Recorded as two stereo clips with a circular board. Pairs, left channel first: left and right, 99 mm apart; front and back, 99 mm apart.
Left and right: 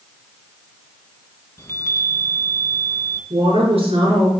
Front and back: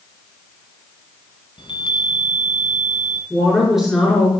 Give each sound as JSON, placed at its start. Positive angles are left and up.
{"t": 1.6, "sound": "a chime", "azimuth_deg": 30, "distance_m": 1.9}
{"t": 3.3, "sound": "a woman speaking", "azimuth_deg": -85, "distance_m": 5.0}